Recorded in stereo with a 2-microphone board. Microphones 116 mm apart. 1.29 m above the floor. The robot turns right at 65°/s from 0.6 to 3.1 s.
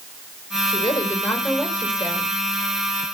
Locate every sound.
0.7 s a woman speaking: 125° left, 4.5 m; by 2.4 s 125° right, 4.5 m